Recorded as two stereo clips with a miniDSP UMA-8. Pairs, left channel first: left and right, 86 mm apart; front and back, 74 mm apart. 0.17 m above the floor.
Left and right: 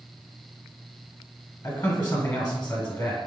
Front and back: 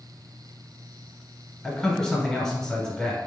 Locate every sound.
1.6 s a man speaking: 65° left, 1.1 m